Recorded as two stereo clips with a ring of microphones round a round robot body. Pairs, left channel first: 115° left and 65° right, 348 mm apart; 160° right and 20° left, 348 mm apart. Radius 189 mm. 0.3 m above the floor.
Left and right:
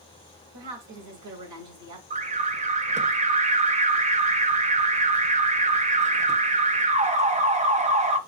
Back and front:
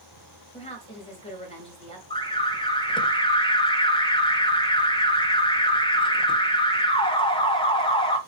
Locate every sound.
0.5 s a woman speaking: 85° right, 2.5 m
2.1 s an alarm: 105° right, 0.7 m